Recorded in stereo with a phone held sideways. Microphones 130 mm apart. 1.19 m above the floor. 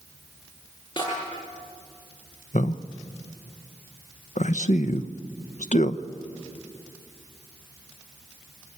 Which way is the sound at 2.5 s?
65° left (ahead or behind).